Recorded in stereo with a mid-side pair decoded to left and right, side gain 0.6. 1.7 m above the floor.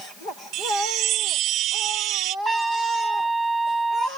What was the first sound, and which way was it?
A chime, 65° right.